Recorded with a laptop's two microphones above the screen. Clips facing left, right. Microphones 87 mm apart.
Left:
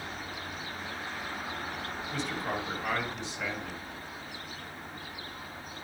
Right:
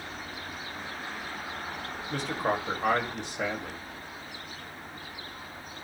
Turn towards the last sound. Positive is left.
turn(degrees=-55)  # may be behind; listen again after turning